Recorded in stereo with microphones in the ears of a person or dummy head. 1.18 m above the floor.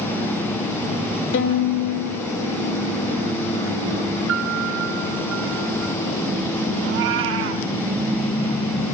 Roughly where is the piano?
Right.